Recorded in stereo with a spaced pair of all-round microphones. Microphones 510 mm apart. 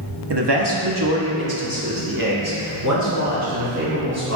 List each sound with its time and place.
0.3 s a man speaking: 50° right (ahead or behind), 1.0 m; by 4.4 s 30° right (ahead or behind), 2.5 m